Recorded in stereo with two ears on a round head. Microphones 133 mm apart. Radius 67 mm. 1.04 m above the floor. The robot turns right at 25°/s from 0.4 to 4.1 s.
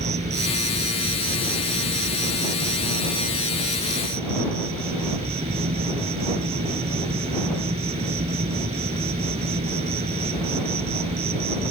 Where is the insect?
135° right; by 11.7 s 40° right.